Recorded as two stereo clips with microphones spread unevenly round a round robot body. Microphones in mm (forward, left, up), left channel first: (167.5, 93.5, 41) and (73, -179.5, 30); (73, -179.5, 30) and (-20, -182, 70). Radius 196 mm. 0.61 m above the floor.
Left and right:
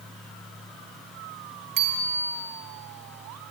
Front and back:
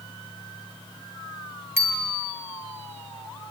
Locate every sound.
1.8 s a bicycle bell: 115° right, 4 m